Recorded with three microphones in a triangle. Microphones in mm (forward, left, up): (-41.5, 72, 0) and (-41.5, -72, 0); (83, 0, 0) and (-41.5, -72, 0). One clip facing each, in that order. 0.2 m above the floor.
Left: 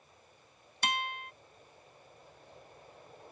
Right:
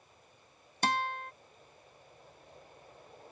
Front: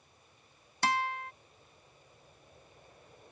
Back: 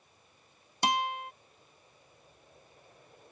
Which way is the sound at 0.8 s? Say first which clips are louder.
Right 4 dB, back 2 dB; 90° right.